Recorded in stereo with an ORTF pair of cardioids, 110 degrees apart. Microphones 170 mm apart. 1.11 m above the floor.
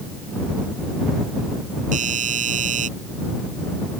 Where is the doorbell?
45° right.